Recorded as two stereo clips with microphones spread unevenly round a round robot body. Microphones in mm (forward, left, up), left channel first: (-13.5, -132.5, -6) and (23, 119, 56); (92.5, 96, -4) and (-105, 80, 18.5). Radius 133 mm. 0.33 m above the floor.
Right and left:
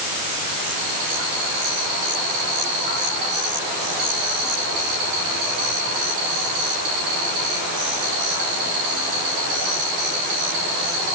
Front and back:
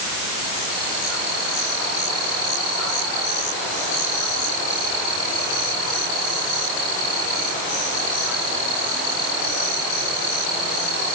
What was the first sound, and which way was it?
Only background noise.